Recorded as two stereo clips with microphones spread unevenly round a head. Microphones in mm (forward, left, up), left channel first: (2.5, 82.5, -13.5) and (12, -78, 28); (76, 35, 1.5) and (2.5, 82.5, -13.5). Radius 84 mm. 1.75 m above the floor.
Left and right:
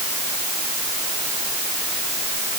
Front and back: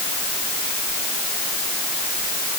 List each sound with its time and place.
Only background noise.